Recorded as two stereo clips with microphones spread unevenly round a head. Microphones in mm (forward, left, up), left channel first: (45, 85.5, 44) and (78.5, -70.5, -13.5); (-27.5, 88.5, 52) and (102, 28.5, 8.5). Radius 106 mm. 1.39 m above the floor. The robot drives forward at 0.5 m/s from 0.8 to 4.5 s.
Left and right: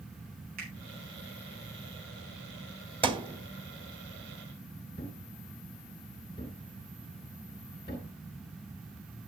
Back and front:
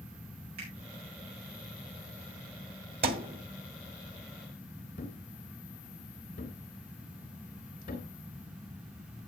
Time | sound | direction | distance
0.6 | a finger snap | 55° right | 8 m
3.0 | a thud | 10° right | 1.4 m
5.0 | a thud | 165° left | 3 m